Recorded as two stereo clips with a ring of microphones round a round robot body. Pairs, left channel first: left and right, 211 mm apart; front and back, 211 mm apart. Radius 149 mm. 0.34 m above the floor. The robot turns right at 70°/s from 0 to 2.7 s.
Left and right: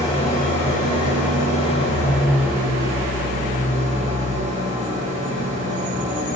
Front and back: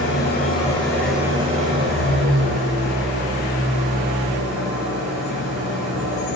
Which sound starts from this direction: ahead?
An engine running, at 0.0 s.